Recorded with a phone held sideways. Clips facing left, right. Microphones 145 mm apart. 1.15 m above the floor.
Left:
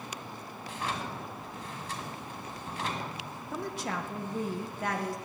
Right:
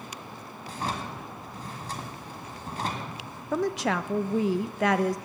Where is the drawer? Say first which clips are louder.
Right 3 dB; 35° right (ahead or behind), 1.8 m.